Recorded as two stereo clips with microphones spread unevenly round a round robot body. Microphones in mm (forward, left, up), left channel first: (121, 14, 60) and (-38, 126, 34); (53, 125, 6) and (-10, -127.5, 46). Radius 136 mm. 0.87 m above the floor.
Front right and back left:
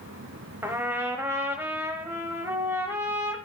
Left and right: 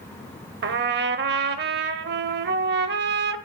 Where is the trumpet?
130° right, 0.8 m.